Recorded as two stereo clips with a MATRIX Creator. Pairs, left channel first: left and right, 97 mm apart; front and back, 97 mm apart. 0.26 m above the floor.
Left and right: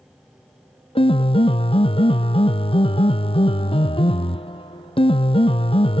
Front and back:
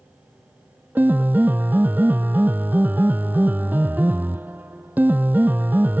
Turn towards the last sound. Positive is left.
turn(degrees=110)